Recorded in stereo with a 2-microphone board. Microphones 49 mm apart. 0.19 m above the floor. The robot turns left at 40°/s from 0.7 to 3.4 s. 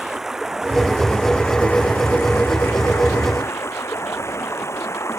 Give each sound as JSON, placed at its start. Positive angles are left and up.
{"t": 0.0, "sound": "running water", "azimuth_deg": -170}